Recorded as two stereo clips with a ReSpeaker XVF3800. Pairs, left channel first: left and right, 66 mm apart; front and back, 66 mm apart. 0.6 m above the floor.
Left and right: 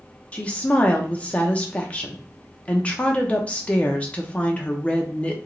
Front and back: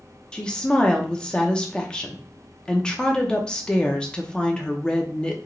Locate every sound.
0.3 s a woman speaking: 55° left, 0.6 m